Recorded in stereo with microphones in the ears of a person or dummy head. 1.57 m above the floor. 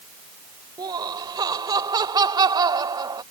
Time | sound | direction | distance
0.8 | laughter | 20° right (ahead or behind) | ?